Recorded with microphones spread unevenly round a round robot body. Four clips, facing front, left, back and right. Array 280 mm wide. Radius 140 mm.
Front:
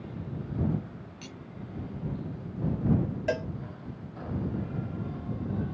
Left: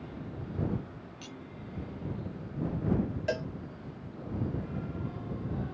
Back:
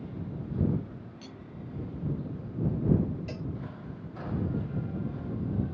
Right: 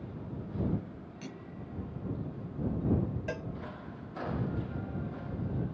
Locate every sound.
1.2 s cutlery clinking: 70° right
3.3 s a cowbell: 15° left